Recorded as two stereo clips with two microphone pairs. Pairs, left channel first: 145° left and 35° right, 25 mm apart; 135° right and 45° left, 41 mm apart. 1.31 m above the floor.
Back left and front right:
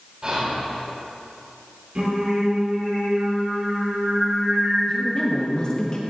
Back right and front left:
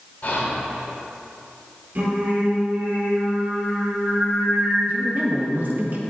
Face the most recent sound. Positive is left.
turn(degrees=85)